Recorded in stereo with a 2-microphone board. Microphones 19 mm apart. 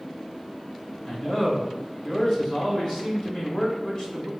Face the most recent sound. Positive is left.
turn(degrees=35)  # may be behind; listen again after turning